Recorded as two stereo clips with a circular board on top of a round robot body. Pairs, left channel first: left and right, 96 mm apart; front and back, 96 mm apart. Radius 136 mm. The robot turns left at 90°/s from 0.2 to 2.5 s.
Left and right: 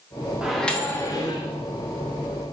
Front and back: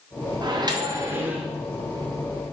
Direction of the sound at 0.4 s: 170° right.